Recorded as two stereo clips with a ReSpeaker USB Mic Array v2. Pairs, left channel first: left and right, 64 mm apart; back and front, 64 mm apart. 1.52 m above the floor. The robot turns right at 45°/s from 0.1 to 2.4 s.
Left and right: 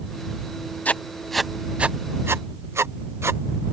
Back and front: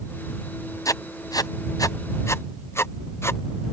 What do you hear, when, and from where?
0.8 s writing: 155° left; by 3.4 s 135° right